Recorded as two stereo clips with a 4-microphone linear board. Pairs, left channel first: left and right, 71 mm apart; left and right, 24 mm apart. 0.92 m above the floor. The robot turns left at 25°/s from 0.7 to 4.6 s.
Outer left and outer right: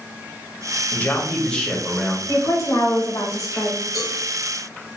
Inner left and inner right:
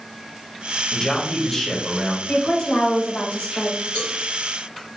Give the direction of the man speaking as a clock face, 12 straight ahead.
11 o'clock.